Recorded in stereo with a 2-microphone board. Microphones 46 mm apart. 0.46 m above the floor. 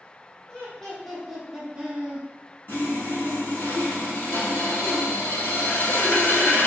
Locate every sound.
0.5 s laughter: 15° left (ahead or behind), 1.4 m; by 2.3 s 30° right (ahead or behind), 1.1 m
2.7 s sawing: 50° left (ahead or behind), 1.3 m